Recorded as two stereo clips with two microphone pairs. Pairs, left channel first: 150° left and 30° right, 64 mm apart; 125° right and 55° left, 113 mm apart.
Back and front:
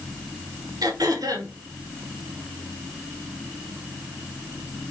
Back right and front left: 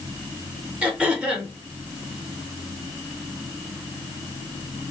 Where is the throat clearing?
25° right, 1.3 m.